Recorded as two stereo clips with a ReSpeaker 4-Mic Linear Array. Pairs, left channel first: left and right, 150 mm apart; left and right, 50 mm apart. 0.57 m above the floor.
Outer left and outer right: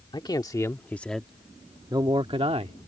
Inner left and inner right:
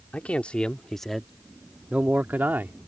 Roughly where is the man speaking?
Left.